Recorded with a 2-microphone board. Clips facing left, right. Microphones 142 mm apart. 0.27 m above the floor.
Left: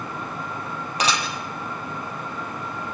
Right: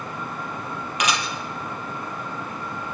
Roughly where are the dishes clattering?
Left.